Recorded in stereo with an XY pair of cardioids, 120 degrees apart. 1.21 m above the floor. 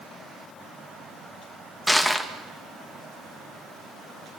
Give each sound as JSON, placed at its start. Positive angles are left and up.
{"t": 1.9, "sound": "crushing", "azimuth_deg": 5, "distance_m": 1.6}